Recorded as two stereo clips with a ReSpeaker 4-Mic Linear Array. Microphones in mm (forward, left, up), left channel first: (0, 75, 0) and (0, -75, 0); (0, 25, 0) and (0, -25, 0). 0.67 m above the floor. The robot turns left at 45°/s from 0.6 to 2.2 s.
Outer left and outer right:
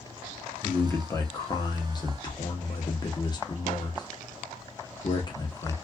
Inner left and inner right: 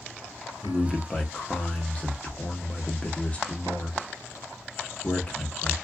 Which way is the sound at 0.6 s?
10° left (ahead or behind).